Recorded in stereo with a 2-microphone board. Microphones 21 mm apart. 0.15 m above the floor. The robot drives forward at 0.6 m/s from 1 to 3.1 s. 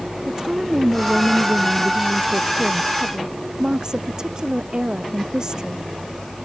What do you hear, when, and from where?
0.3 s a woman speaking: 25° right (ahead or behind); by 5.8 s 30° right (ahead or behind)